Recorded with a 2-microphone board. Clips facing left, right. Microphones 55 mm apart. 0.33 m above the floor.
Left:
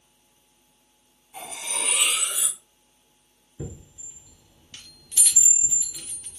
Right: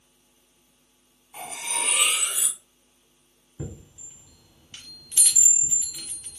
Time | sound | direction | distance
1.3 | cutlery clinking | 25° right (ahead or behind) | 1.4 m
3.6 | a chime | 25° right (ahead or behind) | 1.3 m